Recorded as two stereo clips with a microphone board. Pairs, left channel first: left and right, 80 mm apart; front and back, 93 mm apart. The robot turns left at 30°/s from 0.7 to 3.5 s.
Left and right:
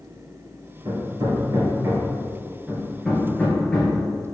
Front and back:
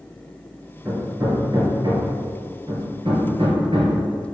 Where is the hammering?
115° right, 2.5 m; by 4.0 s 165° left, 2.5 m.